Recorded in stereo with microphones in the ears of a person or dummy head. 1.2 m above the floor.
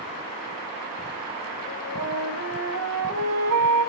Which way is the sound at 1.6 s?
75° right (ahead or behind).